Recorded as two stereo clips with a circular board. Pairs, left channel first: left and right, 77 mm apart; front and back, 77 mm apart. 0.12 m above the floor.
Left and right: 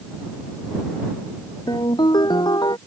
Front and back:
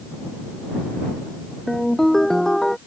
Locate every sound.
1.7 s a ringtone: 85° left